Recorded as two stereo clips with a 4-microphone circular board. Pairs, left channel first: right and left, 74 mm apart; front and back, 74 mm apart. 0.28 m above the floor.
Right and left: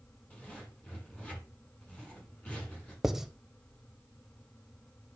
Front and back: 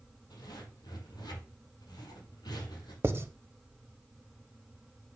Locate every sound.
0.3 s a zipper: 20° right, 5 m
3.0 s writing: 170° left, 0.6 m